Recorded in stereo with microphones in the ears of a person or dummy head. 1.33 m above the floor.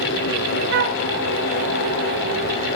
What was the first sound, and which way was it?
A flute, 60° right (ahead or behind).